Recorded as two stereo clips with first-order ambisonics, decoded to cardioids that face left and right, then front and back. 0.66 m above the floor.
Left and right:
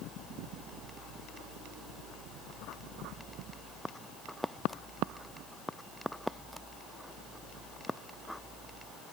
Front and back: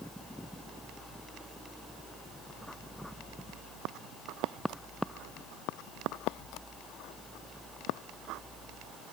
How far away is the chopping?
I don't hear chopping.